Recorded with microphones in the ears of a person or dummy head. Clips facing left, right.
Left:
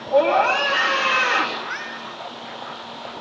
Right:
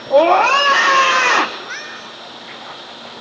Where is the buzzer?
No buzzer in this recording.